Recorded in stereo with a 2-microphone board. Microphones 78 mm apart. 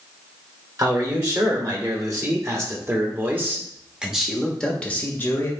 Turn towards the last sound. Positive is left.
turn(degrees=30)  # may be behind; listen again after turning